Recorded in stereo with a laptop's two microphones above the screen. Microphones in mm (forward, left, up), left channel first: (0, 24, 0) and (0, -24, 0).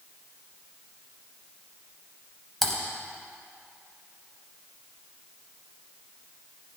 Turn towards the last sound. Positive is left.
turn(degrees=5)  # may be behind; listen again after turning